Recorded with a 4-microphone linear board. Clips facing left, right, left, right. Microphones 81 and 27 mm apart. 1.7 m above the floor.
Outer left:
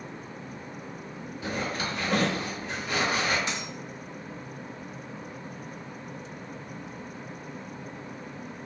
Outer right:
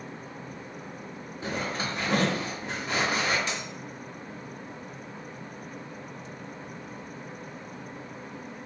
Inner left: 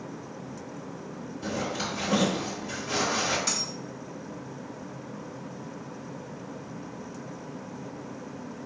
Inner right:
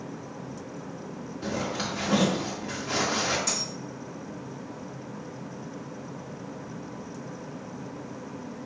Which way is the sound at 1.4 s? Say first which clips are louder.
Even, inner right 1 dB; 30° right (ahead or behind).